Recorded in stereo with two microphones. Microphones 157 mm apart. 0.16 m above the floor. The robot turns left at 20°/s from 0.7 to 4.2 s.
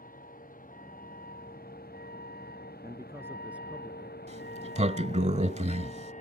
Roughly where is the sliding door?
Right.